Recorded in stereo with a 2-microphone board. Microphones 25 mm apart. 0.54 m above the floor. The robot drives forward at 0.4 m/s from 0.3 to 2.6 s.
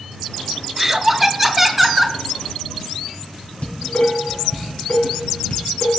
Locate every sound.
0.8 s laughter: 15° right (ahead or behind), 0.6 m; by 2.2 s 10° right (ahead or behind), 0.9 m
3.6 s dishes clattering: 75° left (ahead or behind), 3.5 m